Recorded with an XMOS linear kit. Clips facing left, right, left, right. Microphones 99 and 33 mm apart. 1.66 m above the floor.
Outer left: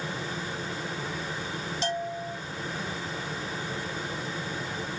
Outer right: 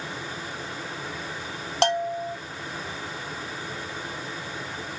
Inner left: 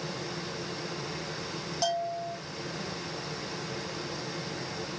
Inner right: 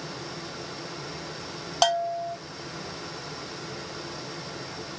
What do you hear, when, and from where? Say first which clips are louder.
0.0 s running water: outer left 1 dB, inner left 1 dB; 20° left (ahead or behind), 4.5 m
1.8 s a bell: outer right 9 dB, inner right 7 dB; 70° right (ahead or behind), 0.5 m